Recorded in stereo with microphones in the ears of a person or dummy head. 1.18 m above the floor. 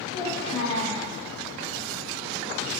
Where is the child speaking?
35° left (ahead or behind), 1.1 m.